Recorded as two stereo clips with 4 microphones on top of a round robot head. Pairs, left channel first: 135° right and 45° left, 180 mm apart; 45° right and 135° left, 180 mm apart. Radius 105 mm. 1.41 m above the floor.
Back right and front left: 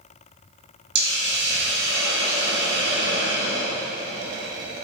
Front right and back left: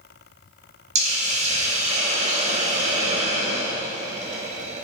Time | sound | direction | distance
0.9 | a hiss | 80° left | 1.5 m